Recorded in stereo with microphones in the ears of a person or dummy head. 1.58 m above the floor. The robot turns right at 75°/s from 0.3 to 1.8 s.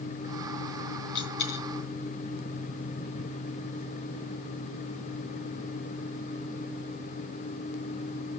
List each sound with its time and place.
1.1 s a dropped coin: 65° left (ahead or behind), 3.5 m; by 1.6 s 55° left (ahead or behind), 3.5 m